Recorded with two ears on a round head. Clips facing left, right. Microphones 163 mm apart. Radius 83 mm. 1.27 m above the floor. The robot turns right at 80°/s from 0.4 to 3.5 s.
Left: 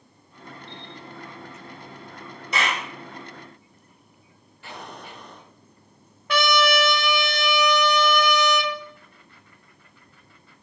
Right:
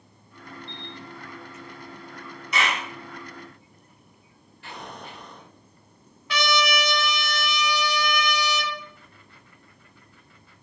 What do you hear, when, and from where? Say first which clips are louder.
0.7 s a camera shutter: even; 80° left, 1.3 m; by 0.9 s 75° left (ahead or behind), 1.3 m
2.5 s a clap: even; 30° left (ahead or behind), 3 m; by 2.9 s 55° left (ahead or behind), 3 m
4.6 s an explosion: even; 80° left, 3 m
6.3 s a trumpet: left 4 dB; 45° left (ahead or behind), 0.9 m